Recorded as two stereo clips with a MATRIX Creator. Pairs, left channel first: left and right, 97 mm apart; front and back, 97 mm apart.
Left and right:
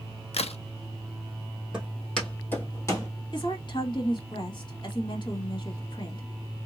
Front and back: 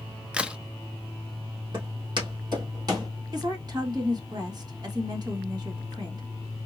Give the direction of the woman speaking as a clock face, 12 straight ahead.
8 o'clock.